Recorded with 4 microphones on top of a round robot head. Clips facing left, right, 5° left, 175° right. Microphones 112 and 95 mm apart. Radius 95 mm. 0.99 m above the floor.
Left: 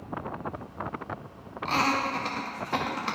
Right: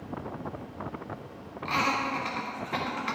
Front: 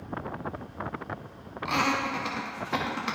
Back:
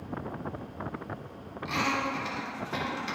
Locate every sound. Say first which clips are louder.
1.6 s laughter: left 2 dB, front 3 dB; 30° left, 1.6 m